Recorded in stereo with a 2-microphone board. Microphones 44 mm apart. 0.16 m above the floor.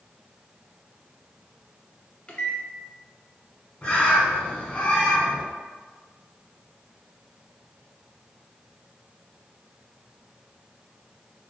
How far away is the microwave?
About 1.0 m.